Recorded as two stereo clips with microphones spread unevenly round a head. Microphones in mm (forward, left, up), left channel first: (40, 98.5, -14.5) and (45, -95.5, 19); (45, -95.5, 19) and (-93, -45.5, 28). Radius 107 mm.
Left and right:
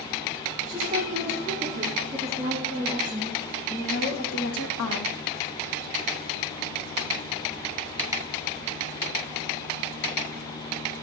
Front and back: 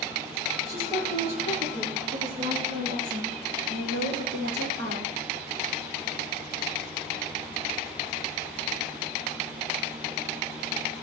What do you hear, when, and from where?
0.7 s a woman speaking: 150° right, 5 m; by 5.1 s 105° left, 2.5 m